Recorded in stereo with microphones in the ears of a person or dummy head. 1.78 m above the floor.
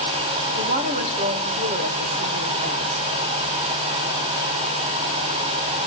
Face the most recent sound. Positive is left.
turn(degrees=-45)  # may be behind; listen again after turning